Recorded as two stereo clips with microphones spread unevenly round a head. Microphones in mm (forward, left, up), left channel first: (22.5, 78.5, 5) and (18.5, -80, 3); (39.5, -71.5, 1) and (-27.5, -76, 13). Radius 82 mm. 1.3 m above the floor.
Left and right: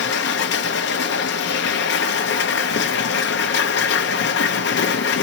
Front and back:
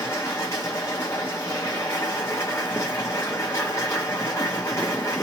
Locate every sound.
0.0 s a machine running: 80° left, 0.7 m